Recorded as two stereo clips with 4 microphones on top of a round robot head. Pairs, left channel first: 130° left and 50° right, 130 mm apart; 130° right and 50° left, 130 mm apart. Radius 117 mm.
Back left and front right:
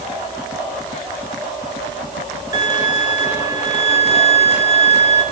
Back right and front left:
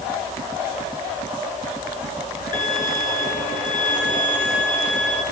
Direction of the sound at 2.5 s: 115° right.